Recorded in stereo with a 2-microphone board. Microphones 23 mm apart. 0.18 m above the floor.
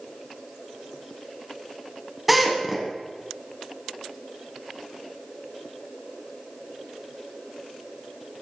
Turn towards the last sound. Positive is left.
turn(degrees=-5)  # may be behind; listen again after turning